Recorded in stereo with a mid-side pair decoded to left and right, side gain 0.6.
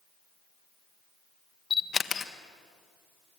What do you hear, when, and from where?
1.7 s a camera shutter: 30° left, 1.3 m